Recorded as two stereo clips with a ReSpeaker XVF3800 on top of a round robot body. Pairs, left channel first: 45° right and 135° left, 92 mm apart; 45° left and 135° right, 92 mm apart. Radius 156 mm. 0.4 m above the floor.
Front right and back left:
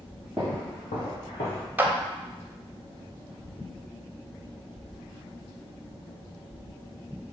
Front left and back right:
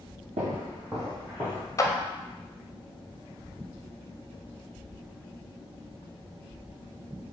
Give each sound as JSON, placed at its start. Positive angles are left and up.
{"t": 0.4, "sound": "footsteps", "azimuth_deg": -140, "distance_m": 0.7}
{"t": 1.8, "sound": "a clap", "azimuth_deg": 75, "distance_m": 0.7}